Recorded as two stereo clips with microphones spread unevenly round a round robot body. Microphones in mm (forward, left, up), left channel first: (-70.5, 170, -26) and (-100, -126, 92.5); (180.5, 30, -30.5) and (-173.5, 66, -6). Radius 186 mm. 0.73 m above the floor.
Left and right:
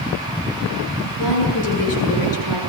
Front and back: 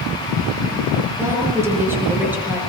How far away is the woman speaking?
About 9 m.